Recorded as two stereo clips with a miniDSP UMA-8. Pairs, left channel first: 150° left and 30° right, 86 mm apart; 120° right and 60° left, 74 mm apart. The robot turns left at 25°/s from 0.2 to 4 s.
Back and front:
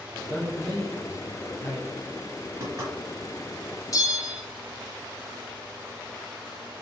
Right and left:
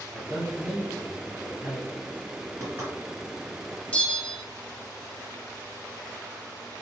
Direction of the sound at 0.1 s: 25° left.